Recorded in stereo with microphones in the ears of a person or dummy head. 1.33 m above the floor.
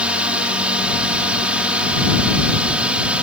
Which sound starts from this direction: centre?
A drone, at 0.0 s.